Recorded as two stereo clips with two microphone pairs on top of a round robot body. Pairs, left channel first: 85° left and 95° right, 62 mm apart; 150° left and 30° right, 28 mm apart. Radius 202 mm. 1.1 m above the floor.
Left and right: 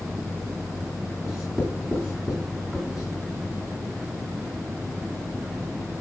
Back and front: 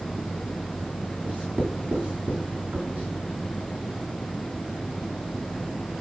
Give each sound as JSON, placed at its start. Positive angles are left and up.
{"t": 1.2, "sound": "writing", "azimuth_deg": -5, "distance_m": 3.0}